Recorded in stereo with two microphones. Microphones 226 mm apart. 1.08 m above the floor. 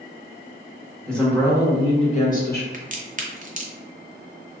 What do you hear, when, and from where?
1.1 s a woman speaking: centre (ahead or behind), 1.2 m; by 2.6 s 50° left (ahead or behind), 1.0 m
2.7 s a crack: 35° right (ahead or behind), 0.6 m